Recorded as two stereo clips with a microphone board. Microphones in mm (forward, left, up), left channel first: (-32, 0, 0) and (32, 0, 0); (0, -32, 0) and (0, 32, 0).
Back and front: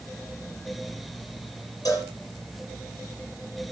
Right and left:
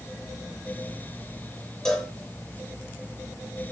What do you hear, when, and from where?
1.9 s a cowbell: 170° right, 8.5 m